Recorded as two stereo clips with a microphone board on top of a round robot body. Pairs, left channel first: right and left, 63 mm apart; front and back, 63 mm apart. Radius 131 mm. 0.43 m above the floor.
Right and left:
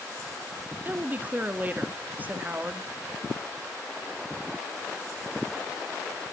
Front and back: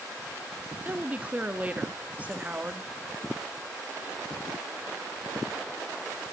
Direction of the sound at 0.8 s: 130° left.